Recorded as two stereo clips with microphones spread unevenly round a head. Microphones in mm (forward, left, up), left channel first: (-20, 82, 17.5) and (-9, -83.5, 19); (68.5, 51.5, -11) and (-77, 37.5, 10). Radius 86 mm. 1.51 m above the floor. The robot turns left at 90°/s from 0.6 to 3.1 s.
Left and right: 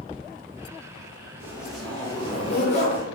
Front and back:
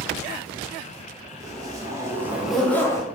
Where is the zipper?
145° right, 0.5 m; by 3.0 s 65° left, 0.5 m.